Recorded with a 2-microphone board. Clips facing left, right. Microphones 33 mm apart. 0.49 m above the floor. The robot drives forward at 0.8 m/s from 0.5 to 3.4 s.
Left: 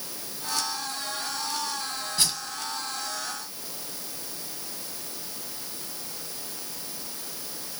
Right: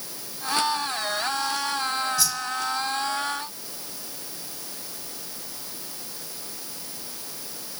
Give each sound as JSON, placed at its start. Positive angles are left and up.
{"t": 2.2, "sound": "a whoosh", "side_deg": 50, "distance_m": 1.1}